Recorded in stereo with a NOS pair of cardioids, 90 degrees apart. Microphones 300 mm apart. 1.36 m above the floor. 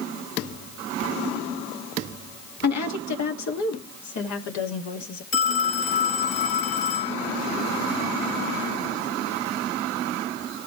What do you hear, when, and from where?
2.6 s a woman speaking: 60° left, 2.5 m; by 5.2 s 70° left, 4.5 m
5.3 s a phone ringing: 60° left, 3.5 m